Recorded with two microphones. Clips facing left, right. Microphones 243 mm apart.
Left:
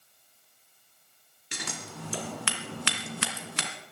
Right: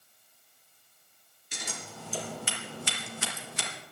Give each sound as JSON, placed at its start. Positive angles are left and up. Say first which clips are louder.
{"t": 1.5, "sound": "scissors", "louder": "left 3 dB", "side_deg": 85, "distance_m": 2.5}